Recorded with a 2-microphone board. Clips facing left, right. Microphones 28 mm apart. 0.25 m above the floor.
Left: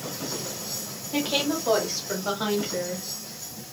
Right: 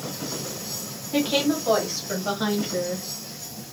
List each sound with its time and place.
1.1 s a woman speaking: 5° right (ahead or behind), 1.3 m; by 3.1 s 10° left (ahead or behind), 1.2 m